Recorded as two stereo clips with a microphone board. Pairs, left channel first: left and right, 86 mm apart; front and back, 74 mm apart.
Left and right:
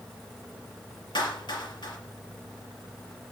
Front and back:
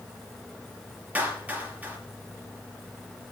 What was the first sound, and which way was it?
A clap, 110° left.